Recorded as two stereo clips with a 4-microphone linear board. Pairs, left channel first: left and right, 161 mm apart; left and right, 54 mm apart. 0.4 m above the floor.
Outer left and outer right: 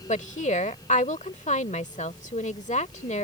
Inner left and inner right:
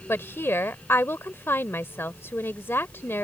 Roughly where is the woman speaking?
Left.